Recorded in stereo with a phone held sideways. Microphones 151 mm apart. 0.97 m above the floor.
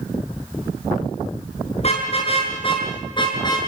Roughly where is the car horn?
Left.